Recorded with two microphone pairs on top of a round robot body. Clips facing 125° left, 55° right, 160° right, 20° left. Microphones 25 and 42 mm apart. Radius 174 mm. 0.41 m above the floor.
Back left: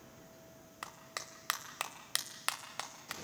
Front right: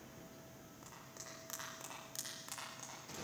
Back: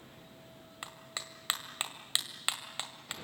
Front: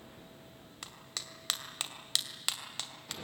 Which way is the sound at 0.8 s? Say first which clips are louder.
Back left 10 dB, back 2 dB; 130° left.